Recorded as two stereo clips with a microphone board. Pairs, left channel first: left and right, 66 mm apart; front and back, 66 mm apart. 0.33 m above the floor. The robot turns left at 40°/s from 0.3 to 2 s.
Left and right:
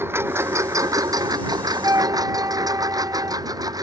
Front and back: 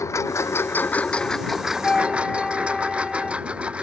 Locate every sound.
0.0 s a lawn mower: 40° right; by 3.8 s 105° right
1.8 s a flute: 75° right; by 3.4 s 80° right